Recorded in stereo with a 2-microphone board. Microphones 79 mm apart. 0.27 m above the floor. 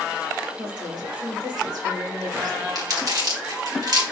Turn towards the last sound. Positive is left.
turn(degrees=-50)  # may be behind; listen again after turning